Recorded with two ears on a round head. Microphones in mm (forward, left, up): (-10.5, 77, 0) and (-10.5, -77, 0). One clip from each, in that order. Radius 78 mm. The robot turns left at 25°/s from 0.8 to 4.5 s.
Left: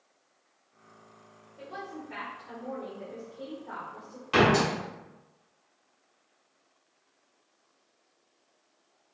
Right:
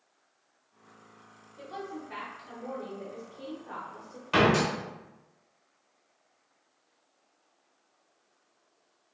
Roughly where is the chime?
I don't hear a chime.